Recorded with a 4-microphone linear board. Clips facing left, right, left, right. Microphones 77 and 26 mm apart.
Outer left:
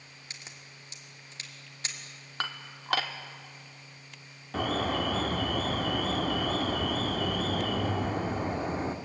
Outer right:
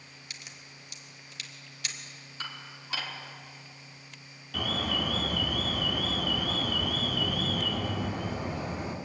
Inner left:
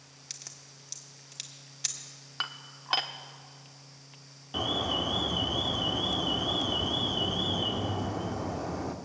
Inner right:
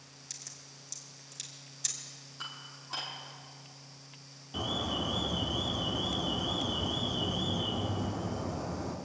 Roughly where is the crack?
Left.